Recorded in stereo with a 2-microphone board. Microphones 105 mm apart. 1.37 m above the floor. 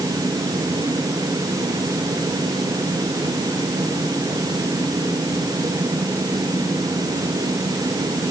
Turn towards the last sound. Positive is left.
No sound to turn to.